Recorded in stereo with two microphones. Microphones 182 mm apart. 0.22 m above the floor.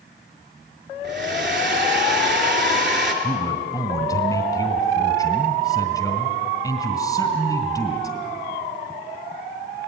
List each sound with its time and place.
1.0 s a hair dryer: 70° right (ahead or behind), 3.5 m
3.2 s a man speaking: 20° left (ahead or behind), 1.9 m